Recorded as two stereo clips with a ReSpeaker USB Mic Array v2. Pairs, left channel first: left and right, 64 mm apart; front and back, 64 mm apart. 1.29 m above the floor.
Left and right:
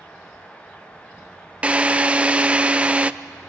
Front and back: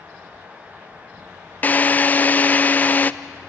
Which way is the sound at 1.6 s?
30° right.